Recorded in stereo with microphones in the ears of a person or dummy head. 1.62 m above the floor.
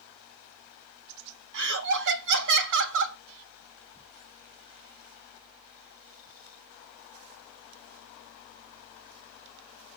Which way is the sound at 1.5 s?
65° right (ahead or behind).